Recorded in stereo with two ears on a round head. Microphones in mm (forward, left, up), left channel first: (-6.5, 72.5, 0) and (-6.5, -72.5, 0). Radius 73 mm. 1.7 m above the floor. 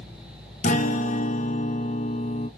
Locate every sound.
0.6 s a guitar: 45° left (ahead or behind), 0.9 m